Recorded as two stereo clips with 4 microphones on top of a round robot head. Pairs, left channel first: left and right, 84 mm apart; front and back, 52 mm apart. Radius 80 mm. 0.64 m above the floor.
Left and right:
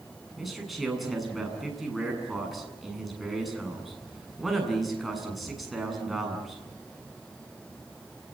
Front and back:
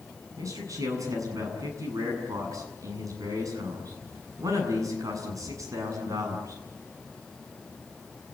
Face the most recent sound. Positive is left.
turn(degrees=180)